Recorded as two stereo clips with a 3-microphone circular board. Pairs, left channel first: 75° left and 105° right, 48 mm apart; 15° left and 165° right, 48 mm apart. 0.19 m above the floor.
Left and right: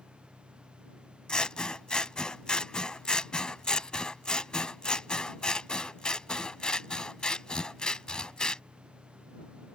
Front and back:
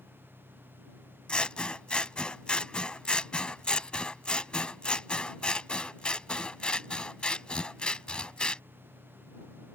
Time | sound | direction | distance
0.0 | an engine running | 35° right | ?
1.3 | scissors | 35° left | ?